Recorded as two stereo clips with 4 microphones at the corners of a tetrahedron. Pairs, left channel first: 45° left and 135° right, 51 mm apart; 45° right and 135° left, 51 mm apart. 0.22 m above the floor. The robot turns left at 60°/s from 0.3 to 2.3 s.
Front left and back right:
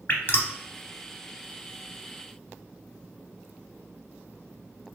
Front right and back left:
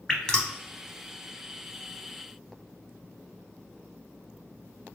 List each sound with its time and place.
0.1 s dripping: 25° left, 0.6 m; by 0.5 s 10° left, 0.6 m